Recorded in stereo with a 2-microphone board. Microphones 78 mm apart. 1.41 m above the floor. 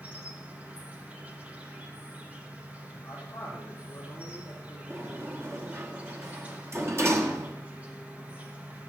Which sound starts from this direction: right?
A sliding door, at 4.9 s.